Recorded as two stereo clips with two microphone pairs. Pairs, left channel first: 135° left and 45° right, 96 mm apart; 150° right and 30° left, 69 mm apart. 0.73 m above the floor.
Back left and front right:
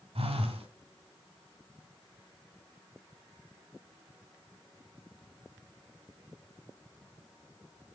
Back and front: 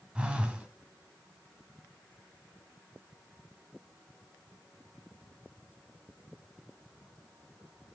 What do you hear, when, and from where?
0.1 s a phone buzzing: 40° right, 1.8 m